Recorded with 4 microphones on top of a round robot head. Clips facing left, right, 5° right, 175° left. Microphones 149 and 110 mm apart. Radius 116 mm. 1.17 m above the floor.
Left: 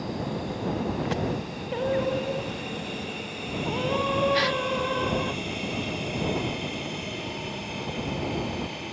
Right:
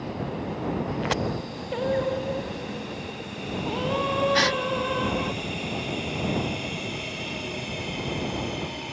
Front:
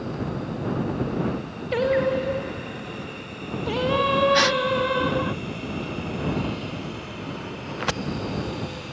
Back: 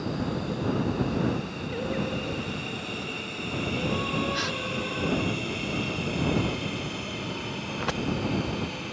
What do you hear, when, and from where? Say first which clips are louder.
1.7 s singing: even, front 10 dB; straight ahead
4.3 s a gasp: right 1 dB, front 11 dB; 40° right